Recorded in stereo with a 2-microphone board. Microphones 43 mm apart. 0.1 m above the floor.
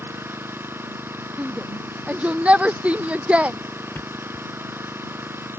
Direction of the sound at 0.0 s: 55° right (ahead or behind).